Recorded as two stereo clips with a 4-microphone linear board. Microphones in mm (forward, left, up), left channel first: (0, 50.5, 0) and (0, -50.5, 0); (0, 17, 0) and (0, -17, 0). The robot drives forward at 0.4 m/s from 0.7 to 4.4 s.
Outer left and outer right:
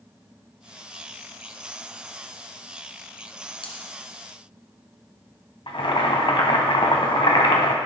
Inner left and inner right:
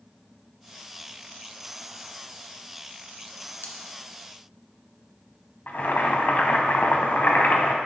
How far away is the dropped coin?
About 1.6 m.